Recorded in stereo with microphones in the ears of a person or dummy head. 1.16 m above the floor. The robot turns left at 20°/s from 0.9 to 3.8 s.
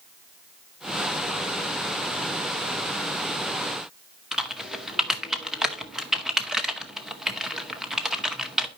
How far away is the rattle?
No rattle in this recording.